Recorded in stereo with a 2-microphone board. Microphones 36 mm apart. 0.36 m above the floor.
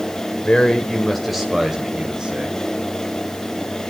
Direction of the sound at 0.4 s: 30° left (ahead or behind).